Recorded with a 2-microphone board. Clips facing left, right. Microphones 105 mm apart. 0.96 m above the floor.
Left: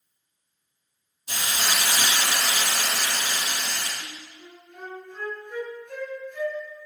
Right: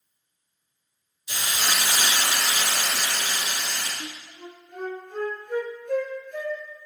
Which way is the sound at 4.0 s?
65° right (ahead or behind).